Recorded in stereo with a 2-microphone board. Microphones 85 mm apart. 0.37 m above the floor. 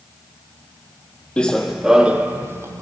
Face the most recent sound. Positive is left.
turn(degrees=-35)  # may be behind; listen again after turning